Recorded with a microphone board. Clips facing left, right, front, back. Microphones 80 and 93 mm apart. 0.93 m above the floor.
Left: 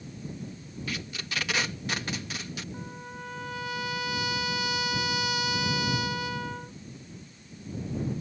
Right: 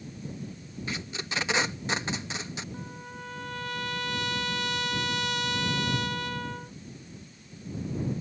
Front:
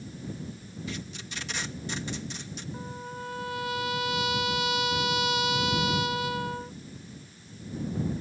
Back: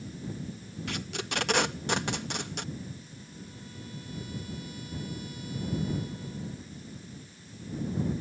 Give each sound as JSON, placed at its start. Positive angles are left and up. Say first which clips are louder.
{"t": 0.9, "sound": "tape being pulled", "louder": "right 2 dB, back 5 dB", "azimuth_deg": -155}
{"t": 2.7, "sound": "a trumpet", "louder": "left 1 dB, front 6 dB", "azimuth_deg": 5}